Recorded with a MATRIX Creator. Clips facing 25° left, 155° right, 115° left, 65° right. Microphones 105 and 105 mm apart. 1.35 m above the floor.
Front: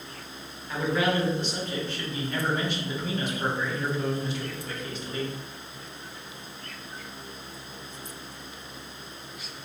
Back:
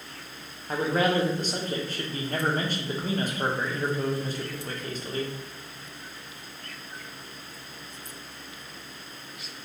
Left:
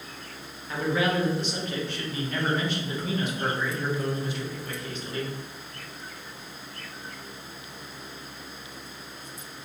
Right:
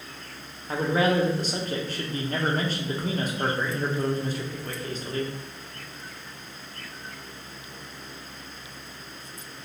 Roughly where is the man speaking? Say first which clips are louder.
Back 1 dB, right 3 dB; behind right.